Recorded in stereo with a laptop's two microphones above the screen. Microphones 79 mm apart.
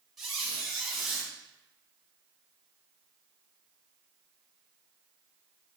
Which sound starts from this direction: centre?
A squeak, at 0.2 s.